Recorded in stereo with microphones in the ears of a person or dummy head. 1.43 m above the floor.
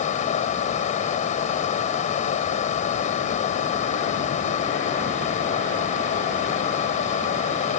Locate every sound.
0.0 s a fan: 40° left (ahead or behind)